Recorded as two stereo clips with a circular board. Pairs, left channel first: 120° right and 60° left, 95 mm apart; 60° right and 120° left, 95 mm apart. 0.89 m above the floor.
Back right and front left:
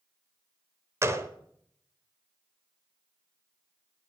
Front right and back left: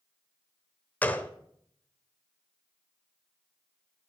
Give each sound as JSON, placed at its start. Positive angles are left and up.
{"t": 1.0, "sound": "a gunshot", "azimuth_deg": 10, "distance_m": 0.8}